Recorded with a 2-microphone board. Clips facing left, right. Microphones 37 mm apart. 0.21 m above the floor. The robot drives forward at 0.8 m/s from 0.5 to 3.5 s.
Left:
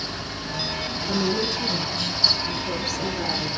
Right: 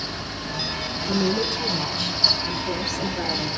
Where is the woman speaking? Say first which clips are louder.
Right 1 dB; 5° right (ahead or behind), 5 m.